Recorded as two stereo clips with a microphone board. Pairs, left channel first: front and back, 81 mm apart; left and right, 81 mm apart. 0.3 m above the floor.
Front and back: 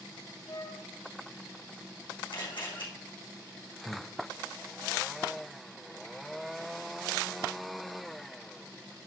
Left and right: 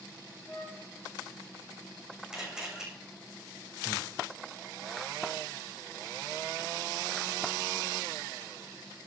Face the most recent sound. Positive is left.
turn(degrees=30)